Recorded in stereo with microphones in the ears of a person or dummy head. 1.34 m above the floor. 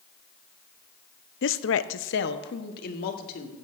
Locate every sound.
1.4 s a woman speaking: 50° left (ahead or behind), 0.5 m